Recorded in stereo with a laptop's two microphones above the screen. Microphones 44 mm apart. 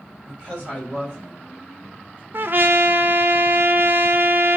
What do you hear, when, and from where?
0.3 s a woman speaking: 20° right (ahead or behind), 5 m; by 2.2 s 45° right (ahead or behind), 4 m
2.3 s a trumpet: 50° right (ahead or behind), 0.7 m